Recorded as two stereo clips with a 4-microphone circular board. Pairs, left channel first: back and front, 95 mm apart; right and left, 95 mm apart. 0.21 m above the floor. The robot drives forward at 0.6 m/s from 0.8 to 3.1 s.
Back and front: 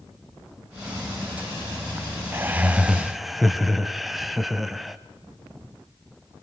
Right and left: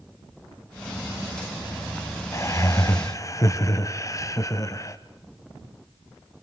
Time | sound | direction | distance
2.3 | laughter | 55° right | 1.2 m